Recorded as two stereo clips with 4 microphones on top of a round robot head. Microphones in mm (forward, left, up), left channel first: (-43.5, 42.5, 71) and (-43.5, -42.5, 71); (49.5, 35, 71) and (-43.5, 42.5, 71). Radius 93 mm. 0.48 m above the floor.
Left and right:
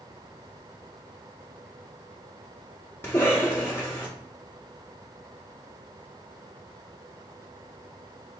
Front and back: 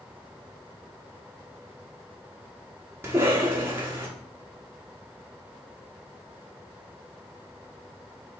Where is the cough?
130° left, 1.0 m.